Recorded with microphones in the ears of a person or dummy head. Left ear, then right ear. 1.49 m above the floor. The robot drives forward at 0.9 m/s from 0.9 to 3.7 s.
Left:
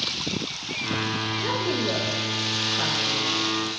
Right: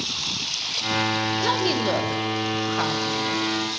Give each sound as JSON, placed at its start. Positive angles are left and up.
{"t": 1.4, "sound": "a woman speaking", "side_deg": -55, "distance_m": 1.3}